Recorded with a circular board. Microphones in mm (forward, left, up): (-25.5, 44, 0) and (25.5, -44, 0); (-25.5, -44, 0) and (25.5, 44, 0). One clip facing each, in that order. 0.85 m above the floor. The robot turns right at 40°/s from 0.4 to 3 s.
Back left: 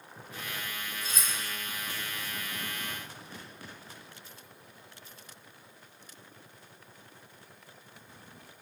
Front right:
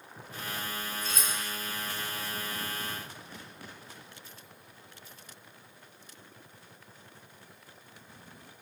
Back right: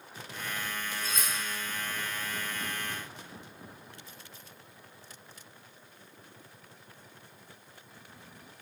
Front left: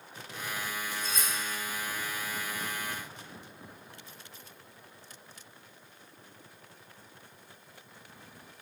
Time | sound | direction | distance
1.0 | cutlery clinking | 35° right | 1.4 m